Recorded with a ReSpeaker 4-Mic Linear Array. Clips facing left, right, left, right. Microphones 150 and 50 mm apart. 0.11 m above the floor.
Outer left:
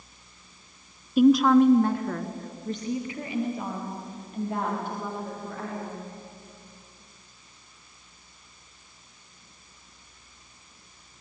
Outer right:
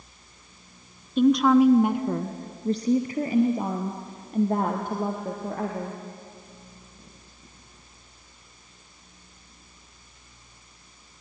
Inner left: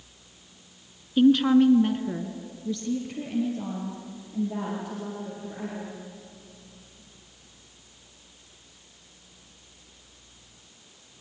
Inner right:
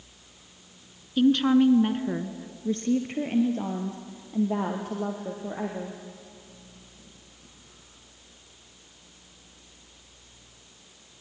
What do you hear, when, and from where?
1.2 s a woman speaking: 10° left (ahead or behind), 1.1 m; by 6.0 s 50° right (ahead or behind), 4 m